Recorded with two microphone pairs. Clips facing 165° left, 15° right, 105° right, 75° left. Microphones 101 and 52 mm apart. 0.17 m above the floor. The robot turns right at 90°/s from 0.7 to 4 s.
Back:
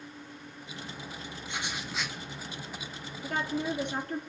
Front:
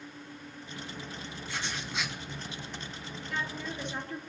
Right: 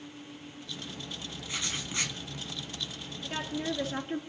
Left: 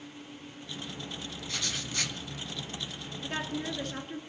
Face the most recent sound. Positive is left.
turn(degrees=-175)